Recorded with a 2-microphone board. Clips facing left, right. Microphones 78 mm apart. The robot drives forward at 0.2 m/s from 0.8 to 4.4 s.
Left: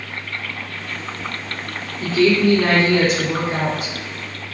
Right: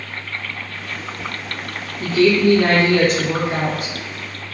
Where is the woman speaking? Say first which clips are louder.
Right 1 dB; 60° right (ahead or behind), 1.4 m; by 3.9 s 50° right (ahead or behind), 1.6 m.